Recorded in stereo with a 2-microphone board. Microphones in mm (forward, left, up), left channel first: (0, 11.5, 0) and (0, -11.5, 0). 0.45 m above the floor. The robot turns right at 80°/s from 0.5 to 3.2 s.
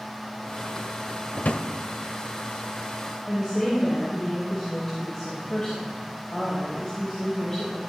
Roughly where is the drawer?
Left.